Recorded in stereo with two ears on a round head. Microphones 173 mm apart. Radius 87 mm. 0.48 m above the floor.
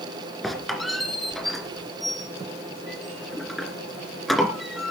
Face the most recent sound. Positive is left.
turn(degrees=0)  # may be behind; listen again after turning